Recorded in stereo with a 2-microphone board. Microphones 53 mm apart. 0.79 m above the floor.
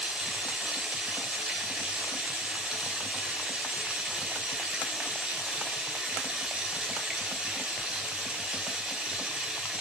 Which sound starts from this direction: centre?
Running water, at 0.0 s.